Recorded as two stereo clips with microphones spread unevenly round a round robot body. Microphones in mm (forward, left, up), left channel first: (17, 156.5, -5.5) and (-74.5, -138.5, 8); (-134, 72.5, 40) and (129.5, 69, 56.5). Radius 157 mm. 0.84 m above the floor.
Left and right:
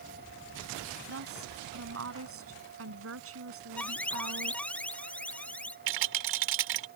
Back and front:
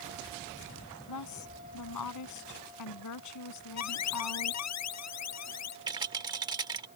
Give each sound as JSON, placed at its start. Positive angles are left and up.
{"t": 1.1, "sound": "a woman speaking", "azimuth_deg": -155}
{"t": 3.8, "sound": "an alarm", "azimuth_deg": 160}
{"t": 5.9, "sound": "a rattle", "azimuth_deg": -80}